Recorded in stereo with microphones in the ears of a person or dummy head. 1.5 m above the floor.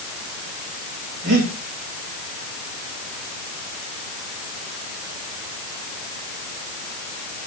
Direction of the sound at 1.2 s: 70° right (ahead or behind).